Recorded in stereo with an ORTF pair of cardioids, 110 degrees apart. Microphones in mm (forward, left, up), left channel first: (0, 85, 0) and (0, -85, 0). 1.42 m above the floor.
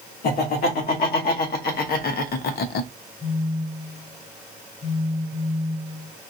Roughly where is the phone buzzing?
Ahead left.